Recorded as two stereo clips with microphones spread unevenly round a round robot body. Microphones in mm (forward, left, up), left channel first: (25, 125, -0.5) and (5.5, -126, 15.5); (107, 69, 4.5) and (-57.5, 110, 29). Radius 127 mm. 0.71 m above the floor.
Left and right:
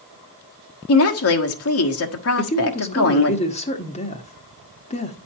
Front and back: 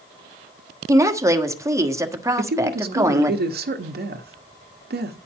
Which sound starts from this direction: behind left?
A woman speaking, at 2.4 s.